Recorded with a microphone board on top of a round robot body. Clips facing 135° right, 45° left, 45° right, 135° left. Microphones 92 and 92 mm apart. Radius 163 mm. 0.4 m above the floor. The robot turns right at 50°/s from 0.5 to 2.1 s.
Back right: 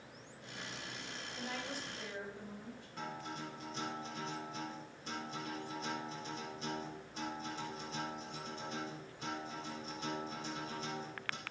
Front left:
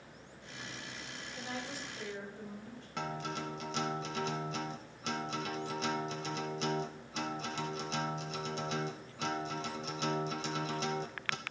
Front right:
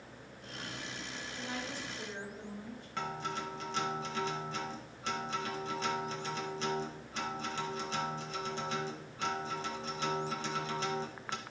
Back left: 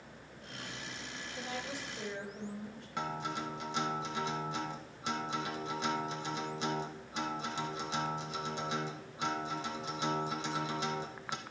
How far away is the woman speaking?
About 3.5 m.